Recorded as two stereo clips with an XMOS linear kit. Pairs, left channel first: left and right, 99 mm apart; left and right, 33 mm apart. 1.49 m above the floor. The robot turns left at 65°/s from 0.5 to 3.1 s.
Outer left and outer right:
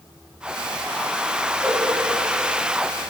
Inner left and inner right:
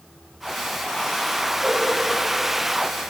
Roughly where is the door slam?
I don't hear a door slam.